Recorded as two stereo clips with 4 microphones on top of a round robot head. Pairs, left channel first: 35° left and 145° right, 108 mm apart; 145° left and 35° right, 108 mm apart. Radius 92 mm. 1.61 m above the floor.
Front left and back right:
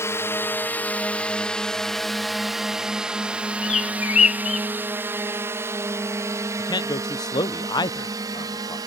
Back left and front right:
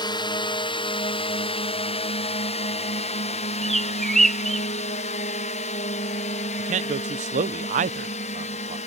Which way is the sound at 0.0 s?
100° left.